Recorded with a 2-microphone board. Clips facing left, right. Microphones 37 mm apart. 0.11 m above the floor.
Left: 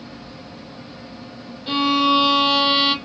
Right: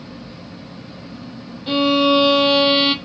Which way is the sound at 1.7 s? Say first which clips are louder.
Right 2 dB; 5° right (ahead or behind).